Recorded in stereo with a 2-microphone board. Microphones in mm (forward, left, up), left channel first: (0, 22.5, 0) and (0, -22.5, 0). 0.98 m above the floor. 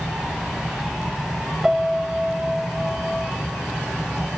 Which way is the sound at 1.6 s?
10° right (ahead or behind).